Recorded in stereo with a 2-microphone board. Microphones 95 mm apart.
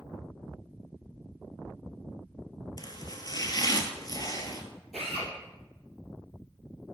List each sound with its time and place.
2.8 s chopping: 40° left (ahead or behind), 0.8 m
4.9 s a drill: 5° left (ahead or behind), 3 m